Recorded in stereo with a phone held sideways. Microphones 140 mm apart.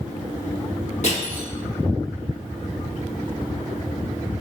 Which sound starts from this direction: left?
Crushing, at 1.0 s.